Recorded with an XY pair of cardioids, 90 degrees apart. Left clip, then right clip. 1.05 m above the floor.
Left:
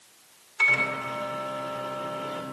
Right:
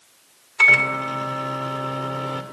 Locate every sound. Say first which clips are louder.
0.6 s a microwave: right 8 dB; 55° right, 2 m